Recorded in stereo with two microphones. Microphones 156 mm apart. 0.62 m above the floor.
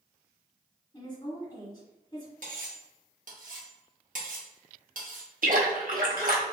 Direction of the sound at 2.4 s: 60° right (ahead or behind).